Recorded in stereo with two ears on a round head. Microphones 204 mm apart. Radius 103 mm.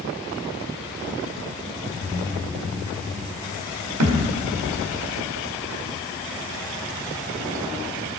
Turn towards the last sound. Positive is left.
turn(degrees=-75)  # may be behind; listen again after turning